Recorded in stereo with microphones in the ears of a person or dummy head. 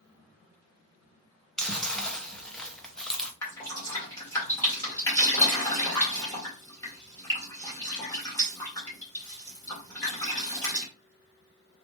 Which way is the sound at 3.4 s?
15° left (ahead or behind).